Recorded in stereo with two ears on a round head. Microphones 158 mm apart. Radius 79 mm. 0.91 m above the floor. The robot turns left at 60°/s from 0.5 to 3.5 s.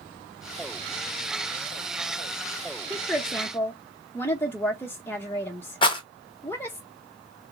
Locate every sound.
2.9 s a woman speaking: 5° right (ahead or behind), 0.6 m; by 6.8 s 10° left (ahead or behind), 0.6 m
5.8 s a rattle: 25° left (ahead or behind), 0.8 m